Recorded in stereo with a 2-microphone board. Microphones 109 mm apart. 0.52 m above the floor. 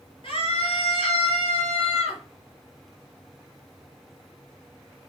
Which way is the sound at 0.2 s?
50° left (ahead or behind).